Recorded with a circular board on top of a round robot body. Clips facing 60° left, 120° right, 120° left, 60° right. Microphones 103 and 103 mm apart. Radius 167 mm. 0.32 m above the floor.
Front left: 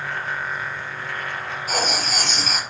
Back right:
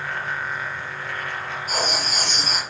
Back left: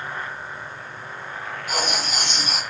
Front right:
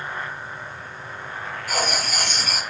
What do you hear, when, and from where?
1.7 s writing: 50° left, 5 m